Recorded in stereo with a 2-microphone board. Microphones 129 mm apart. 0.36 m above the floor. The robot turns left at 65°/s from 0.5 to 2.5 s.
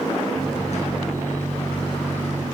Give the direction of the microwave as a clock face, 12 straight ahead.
8 o'clock.